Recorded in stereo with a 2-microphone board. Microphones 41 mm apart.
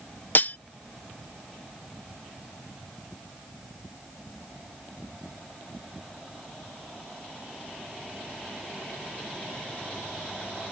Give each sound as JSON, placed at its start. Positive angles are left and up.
{"t": 0.3, "sound": "cutlery clinking", "side_deg": 50}